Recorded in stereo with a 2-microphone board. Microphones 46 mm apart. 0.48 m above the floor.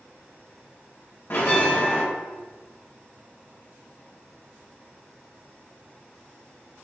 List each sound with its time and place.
1.3 s a bell: 55° left (ahead or behind), 1.8 m